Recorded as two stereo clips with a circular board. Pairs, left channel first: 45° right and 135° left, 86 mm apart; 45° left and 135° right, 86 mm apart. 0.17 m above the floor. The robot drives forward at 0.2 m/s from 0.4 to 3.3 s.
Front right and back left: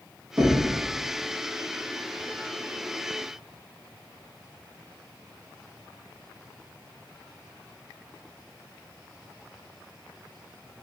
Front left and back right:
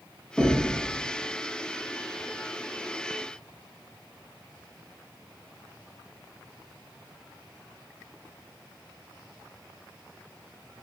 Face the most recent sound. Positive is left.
turn(degrees=150)